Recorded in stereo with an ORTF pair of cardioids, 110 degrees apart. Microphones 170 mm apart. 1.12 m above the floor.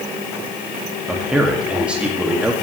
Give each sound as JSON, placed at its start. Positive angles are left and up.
{"t": 1.1, "sound": "a man speaking", "azimuth_deg": -5, "distance_m": 2.0}